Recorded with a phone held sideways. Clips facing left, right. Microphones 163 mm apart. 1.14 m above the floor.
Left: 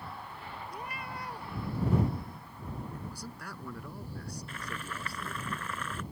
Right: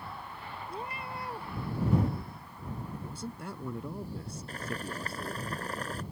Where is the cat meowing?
25° right (ahead or behind).